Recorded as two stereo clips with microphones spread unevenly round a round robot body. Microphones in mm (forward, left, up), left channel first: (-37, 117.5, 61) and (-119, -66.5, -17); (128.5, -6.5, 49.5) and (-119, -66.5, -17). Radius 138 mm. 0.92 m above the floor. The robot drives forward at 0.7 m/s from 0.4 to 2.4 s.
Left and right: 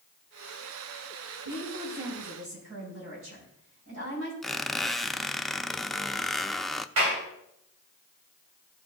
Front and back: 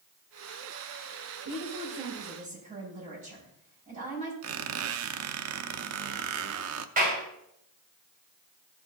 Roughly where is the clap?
Right.